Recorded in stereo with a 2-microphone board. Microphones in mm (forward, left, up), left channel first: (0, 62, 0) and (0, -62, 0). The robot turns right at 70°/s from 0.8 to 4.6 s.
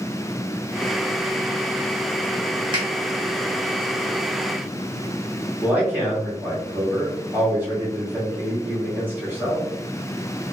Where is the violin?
I don't hear a violin.